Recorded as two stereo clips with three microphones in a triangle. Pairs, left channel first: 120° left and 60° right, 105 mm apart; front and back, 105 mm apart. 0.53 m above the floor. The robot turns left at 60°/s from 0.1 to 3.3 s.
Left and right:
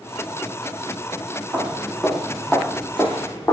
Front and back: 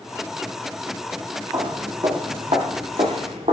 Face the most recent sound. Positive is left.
turn(degrees=-170)